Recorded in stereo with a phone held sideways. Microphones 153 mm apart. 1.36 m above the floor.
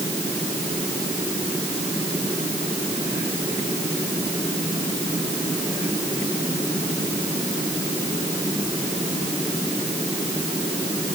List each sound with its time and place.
Only background noise.